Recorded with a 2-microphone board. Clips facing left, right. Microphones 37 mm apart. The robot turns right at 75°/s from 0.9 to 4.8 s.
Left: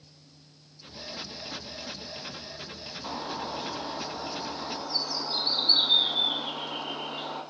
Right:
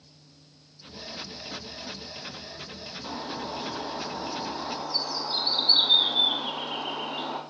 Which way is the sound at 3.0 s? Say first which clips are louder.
Even; 20° left (ahead or behind).